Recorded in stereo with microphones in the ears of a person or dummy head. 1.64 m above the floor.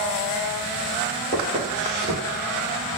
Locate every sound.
1.3 s footsteps: 35° left (ahead or behind), 1.9 m